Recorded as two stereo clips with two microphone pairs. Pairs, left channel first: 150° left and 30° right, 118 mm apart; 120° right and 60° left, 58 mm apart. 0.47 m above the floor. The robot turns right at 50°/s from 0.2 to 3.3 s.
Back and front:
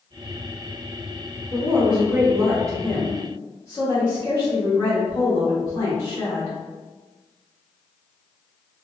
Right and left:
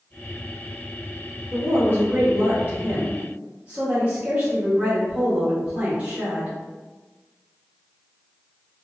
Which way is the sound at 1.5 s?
20° left.